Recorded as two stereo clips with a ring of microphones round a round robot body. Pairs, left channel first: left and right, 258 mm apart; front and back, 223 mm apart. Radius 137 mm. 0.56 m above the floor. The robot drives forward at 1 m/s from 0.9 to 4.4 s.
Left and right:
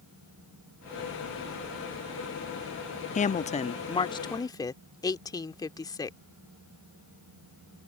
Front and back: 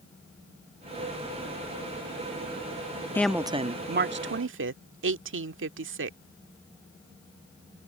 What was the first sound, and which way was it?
A woman speaking, 70° left.